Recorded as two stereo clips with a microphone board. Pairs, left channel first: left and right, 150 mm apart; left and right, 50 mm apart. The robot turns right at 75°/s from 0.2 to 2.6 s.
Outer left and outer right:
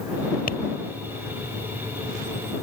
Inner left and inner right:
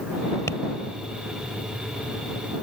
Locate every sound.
0.5 s tapping: 75° left (ahead or behind); by 0.6 s 80° left